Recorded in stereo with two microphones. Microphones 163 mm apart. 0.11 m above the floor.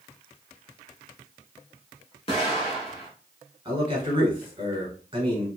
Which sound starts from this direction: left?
An explosion, at 2.3 s.